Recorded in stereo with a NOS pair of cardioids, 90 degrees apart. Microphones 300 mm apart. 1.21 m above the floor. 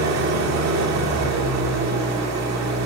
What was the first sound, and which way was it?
An engine running, 70° right.